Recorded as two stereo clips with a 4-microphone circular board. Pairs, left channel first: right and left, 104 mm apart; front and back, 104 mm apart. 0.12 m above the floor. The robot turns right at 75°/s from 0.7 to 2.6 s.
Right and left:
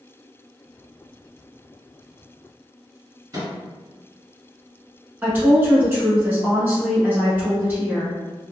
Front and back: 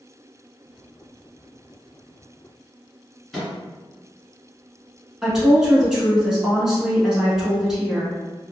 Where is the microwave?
90° left, 1.6 m.